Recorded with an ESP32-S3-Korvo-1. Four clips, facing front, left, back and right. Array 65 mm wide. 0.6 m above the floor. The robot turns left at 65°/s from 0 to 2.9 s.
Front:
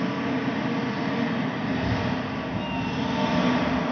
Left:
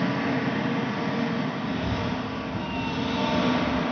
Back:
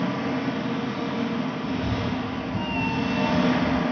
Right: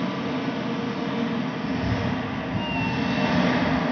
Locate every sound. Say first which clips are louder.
0.0 s an engine running: left 1 dB, even; 105° left, 2.5 m; by 3.9 s 85° right, 2.5 m
1.6 s a cat meowing: right 2 dB, front 1 dB; 60° right, 0.5 m; by 3.8 s 140° right, 0.5 m